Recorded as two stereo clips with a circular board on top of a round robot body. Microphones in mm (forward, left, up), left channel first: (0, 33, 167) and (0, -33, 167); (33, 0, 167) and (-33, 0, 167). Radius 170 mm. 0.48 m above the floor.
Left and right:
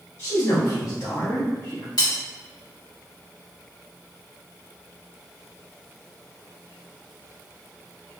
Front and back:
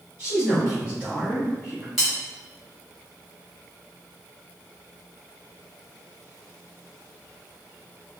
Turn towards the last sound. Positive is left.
turn(degrees=90)